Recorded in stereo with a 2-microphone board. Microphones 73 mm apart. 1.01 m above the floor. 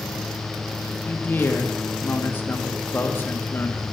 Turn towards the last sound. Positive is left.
turn(degrees=30)  # may be behind; listen again after turning